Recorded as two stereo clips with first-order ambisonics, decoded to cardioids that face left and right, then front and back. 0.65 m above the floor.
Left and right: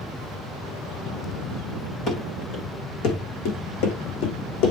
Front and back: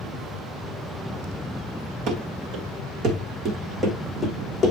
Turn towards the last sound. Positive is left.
turn(degrees=75)